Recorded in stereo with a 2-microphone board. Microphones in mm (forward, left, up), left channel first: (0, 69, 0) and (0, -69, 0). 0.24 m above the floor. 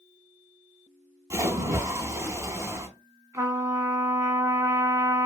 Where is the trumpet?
25° right (ahead or behind), 0.7 m.